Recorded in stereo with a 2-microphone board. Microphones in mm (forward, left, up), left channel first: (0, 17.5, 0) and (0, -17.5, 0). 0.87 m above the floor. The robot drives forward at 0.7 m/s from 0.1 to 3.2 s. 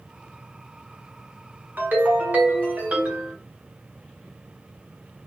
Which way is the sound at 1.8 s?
65° right (ahead or behind).